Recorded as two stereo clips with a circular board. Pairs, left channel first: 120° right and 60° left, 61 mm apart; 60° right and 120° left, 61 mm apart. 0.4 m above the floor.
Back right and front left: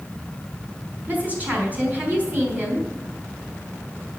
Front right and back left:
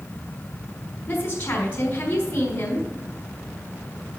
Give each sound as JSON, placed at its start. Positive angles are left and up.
{"t": 1.1, "sound": "a woman speaking", "azimuth_deg": 0, "distance_m": 4.0}